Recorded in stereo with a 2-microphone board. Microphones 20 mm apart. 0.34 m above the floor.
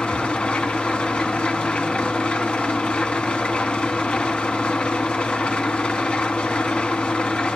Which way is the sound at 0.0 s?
70° left (ahead or behind).